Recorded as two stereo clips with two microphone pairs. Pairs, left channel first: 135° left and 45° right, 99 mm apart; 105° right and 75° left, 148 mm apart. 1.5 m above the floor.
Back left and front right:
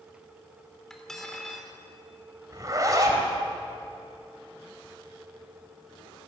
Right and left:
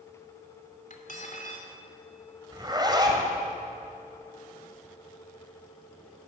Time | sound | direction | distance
0.9 | cutlery clinking | 140° right | 3 m
2.5 | a zipper | 10° left | 3.5 m